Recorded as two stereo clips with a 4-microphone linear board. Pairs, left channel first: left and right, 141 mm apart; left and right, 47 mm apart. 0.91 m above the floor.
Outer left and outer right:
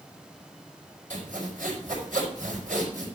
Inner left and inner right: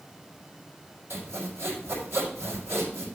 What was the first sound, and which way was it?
Sawing, 80° right.